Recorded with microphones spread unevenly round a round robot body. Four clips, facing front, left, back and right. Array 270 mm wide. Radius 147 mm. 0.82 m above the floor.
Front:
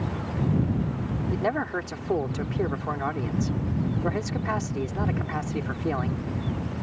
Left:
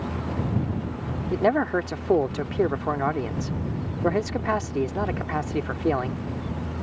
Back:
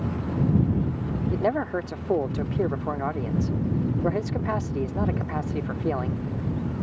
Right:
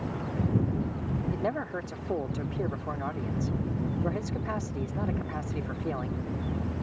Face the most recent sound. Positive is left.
turn(degrees=80)